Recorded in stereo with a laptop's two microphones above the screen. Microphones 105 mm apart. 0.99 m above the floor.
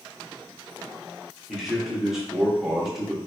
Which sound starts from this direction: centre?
A man speaking, at 1.5 s.